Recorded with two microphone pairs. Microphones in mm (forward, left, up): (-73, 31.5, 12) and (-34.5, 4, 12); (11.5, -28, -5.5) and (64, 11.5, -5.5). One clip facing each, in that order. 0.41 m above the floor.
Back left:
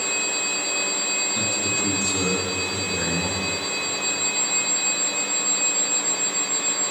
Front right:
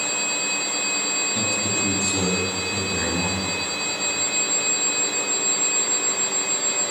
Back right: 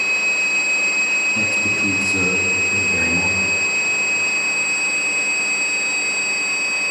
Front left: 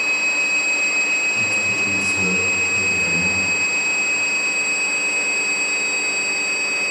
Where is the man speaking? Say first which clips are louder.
Front right 2 dB, back right 1 dB; 105° right, 2.5 m.